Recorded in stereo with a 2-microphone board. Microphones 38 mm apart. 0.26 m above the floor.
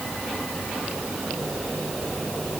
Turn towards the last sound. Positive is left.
No sound to turn to.